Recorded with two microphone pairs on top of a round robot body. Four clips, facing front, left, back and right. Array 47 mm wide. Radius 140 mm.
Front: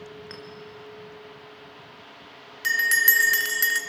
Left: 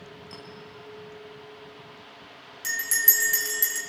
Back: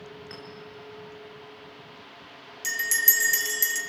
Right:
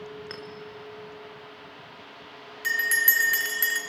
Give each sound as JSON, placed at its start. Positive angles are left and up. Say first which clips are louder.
{"t": 0.3, "sound": "a clink", "louder": "right 4 dB, front 1 dB", "azimuth_deg": -70, "distance_m": 5.5}
{"t": 2.6, "sound": "a bell", "louder": "right 5 dB, front 7 dB", "azimuth_deg": -25, "distance_m": 1.6}